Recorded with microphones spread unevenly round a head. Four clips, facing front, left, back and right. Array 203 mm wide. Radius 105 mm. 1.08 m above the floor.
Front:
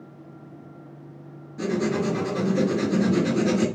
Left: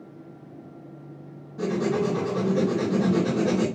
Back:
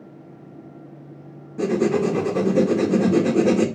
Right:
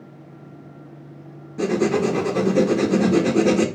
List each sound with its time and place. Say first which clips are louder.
1.6 s writing: right 5 dB, back 5 dB; 155° right, 1.6 m